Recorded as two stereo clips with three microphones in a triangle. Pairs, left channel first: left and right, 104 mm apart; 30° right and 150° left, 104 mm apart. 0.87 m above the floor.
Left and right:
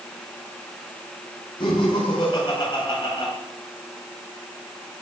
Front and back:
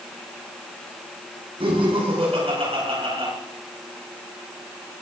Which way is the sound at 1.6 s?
125° left.